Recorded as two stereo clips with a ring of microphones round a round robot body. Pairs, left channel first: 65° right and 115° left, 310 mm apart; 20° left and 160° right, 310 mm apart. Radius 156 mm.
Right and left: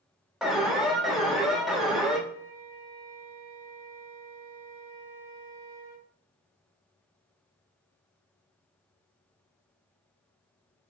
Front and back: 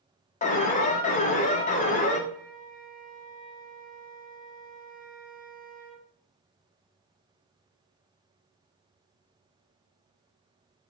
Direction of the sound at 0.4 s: 25° left.